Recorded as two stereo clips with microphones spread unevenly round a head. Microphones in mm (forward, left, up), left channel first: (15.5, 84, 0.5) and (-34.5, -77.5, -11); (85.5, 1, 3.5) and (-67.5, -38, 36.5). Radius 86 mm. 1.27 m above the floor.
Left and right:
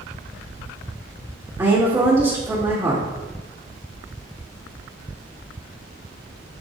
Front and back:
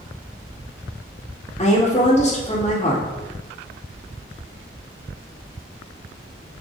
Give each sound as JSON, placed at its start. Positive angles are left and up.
{"t": 1.6, "sound": "a woman speaking", "azimuth_deg": -35, "distance_m": 2.5}